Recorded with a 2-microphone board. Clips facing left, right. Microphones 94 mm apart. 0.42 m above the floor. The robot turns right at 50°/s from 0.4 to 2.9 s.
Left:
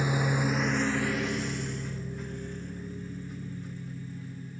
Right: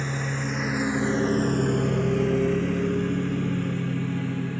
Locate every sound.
0.0 s a lawn mower: 10° left (ahead or behind); by 4.6 s 70° right (ahead or behind)